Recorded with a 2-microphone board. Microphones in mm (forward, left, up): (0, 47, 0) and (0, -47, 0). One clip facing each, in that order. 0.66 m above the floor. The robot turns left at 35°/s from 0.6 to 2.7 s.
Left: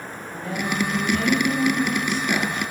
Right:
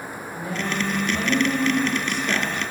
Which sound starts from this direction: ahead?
A woman speaking, at 0.3 s.